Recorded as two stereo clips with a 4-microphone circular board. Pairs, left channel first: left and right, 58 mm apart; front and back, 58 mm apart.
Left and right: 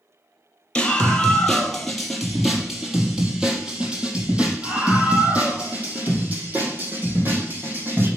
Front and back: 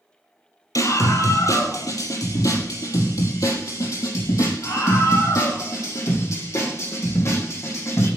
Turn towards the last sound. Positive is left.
turn(degrees=-35)